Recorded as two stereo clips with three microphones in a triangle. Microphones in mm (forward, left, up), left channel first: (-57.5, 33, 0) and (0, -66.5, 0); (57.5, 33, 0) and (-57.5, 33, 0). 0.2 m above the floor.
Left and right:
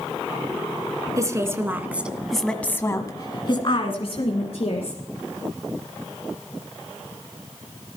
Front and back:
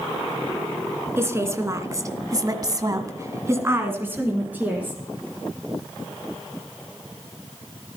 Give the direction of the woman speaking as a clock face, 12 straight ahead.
4 o'clock.